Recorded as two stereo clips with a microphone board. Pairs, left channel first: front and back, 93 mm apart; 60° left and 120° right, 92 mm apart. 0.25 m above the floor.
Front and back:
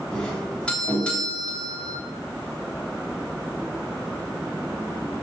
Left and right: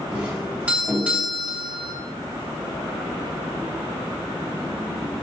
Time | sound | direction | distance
0.1 | a doorbell | 65° right | 1.9 m